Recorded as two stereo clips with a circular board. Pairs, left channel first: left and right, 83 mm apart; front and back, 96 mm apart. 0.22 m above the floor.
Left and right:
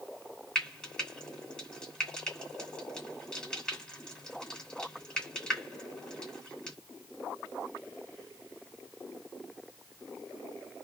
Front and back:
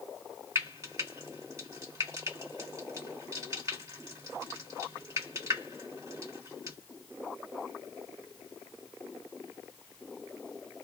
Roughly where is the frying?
Behind.